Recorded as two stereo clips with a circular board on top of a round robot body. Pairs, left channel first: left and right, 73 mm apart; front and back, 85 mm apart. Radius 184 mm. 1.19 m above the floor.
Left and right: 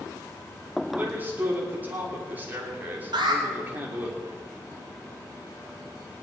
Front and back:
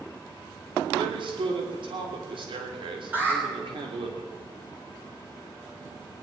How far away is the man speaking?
About 3 m.